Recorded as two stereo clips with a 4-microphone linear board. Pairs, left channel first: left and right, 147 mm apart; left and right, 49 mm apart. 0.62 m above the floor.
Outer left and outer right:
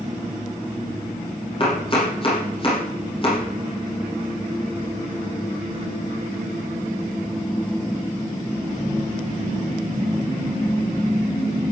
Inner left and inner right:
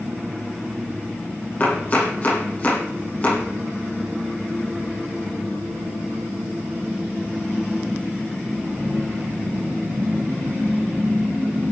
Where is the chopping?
35° left (ahead or behind), 9.5 m.